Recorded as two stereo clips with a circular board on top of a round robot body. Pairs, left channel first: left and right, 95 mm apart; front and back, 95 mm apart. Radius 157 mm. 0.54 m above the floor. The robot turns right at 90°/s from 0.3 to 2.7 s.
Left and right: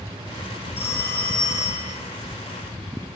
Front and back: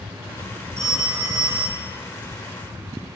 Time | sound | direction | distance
0.8 | a phone ringing | 80° left | 10 m